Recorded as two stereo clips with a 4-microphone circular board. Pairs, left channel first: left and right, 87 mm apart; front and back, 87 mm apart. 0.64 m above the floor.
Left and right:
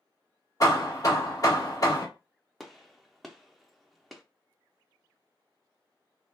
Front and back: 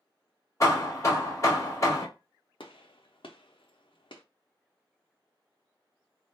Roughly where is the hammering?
Ahead left.